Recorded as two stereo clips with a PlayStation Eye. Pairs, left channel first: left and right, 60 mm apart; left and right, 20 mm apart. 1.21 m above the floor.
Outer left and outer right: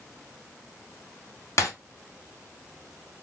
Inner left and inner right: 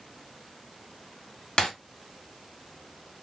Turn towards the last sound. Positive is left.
turn(degrees=55)  # may be behind; listen again after turning